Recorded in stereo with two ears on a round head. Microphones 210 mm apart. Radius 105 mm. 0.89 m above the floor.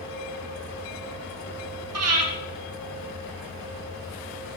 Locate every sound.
1.9 s breathing: 70° right (ahead or behind), 3 m